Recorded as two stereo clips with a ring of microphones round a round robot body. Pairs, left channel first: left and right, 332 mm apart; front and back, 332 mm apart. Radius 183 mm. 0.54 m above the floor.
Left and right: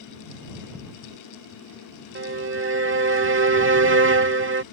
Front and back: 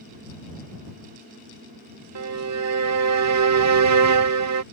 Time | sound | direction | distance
2.1 | a violin | 145° right | ?